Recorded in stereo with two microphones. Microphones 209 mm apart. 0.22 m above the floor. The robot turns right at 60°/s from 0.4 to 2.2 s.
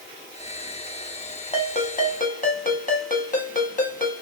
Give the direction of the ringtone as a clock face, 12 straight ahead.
10 o'clock.